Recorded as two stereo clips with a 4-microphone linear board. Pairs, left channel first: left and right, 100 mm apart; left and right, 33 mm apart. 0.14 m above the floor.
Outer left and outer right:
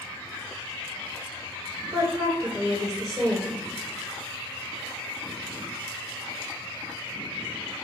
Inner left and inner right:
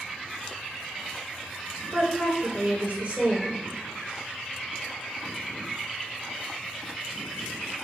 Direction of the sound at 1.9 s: 35° right (ahead or behind).